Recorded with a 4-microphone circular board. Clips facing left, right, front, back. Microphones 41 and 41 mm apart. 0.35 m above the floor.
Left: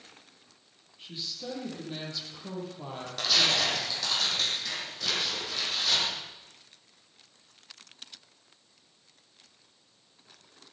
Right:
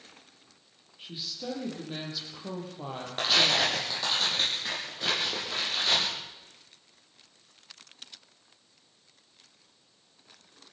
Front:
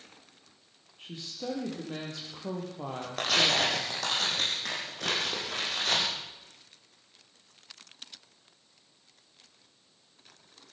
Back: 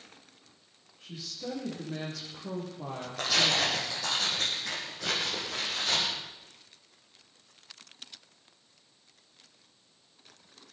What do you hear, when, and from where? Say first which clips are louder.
1.0 s a woman speaking: right 1 dB, front 1 dB; 15° right, 9.5 m
3.2 s tearing paper: right 2 dB, front 1 dB; 30° right, 9.5 m